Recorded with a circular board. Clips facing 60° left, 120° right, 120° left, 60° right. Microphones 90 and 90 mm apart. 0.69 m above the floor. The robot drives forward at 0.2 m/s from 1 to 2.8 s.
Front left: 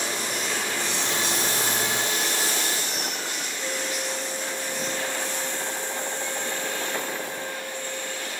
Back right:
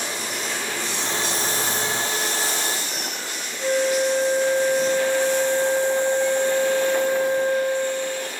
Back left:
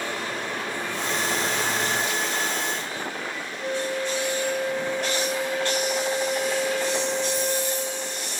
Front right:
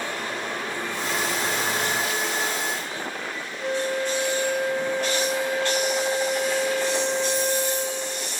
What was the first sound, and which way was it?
A flute, 125° right.